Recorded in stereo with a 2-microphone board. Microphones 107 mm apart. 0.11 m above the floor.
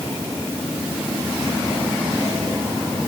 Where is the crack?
No crack in this recording.